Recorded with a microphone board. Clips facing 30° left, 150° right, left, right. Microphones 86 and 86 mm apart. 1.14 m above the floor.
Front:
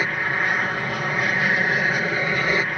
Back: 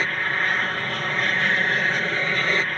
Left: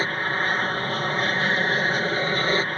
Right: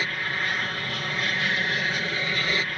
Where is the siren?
No siren in this recording.